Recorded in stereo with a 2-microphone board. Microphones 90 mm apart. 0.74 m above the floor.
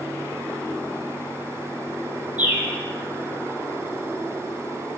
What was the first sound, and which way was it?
A bird, 15° right (ahead or behind).